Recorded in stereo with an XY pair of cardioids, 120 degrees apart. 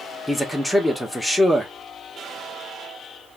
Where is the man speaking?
5° left, 1.5 m.